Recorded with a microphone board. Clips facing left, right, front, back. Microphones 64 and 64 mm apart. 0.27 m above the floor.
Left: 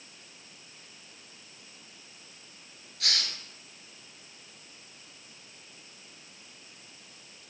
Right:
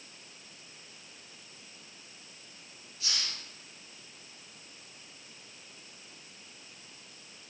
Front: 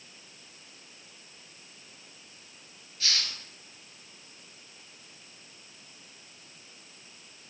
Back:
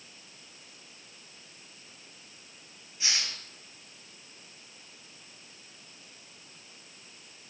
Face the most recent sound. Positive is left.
turn(degrees=110)